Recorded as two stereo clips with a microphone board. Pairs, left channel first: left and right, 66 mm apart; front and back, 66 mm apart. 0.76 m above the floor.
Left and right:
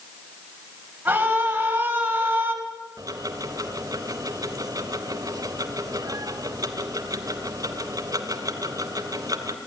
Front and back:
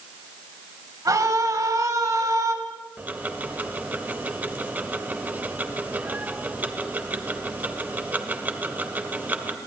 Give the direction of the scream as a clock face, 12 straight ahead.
5 o'clock.